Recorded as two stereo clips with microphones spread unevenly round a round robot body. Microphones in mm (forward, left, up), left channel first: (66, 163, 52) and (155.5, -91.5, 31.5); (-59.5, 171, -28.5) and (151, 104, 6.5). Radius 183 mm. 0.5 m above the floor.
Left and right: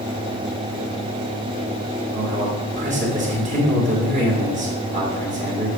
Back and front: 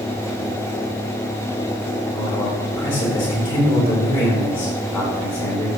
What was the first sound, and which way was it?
A man speaking, 125° right.